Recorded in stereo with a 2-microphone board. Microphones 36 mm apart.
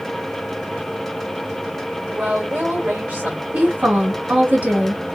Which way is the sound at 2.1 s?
55° right (ahead or behind).